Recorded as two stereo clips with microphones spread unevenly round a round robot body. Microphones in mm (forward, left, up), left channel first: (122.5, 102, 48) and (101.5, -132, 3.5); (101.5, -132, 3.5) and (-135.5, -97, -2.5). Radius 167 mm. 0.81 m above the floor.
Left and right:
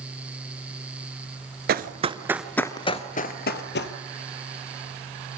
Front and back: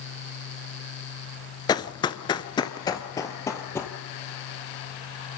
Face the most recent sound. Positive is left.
turn(degrees=75)